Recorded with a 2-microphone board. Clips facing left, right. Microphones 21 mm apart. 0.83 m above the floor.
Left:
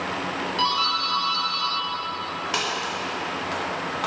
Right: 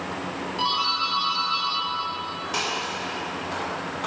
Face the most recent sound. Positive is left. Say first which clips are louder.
# left 1 dB
turn(degrees=30)  # may be behind; listen again after turning